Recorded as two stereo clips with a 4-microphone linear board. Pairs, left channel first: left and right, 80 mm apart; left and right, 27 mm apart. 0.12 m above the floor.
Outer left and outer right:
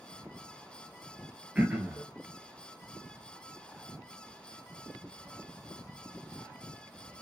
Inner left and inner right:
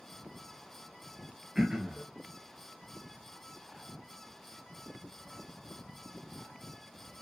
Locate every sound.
1.6 s throat clearing: 15° right (ahead or behind), 1.0 m